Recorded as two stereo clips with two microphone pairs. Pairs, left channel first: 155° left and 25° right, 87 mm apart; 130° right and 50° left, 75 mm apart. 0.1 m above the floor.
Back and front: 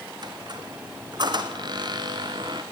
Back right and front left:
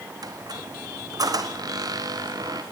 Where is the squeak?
15° left, 2.0 m.